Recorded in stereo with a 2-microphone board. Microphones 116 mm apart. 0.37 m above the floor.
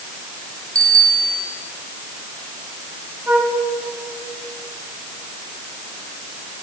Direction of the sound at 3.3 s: 15° right (ahead or behind).